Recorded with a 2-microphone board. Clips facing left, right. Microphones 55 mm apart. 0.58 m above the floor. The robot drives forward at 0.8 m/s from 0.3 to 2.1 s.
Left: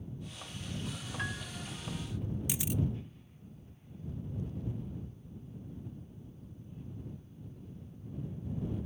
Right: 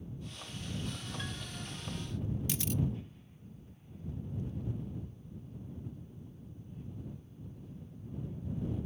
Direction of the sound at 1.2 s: 40° left (ahead or behind).